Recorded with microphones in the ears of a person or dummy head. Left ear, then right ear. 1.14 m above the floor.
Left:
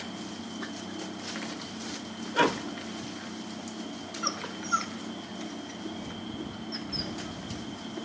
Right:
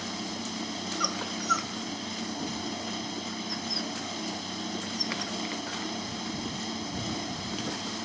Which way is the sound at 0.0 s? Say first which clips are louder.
Right 4 dB; 60° right (ahead or behind).